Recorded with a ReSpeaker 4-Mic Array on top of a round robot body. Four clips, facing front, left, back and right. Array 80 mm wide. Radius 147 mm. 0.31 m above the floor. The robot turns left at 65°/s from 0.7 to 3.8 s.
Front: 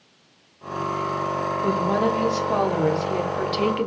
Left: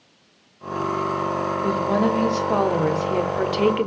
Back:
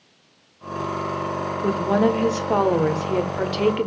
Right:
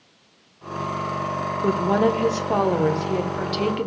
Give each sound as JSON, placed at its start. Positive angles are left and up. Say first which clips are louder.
{"t": 1.6, "sound": "a woman speaking", "louder": "right 2 dB, back 3 dB", "azimuth_deg": -110, "distance_m": 0.8}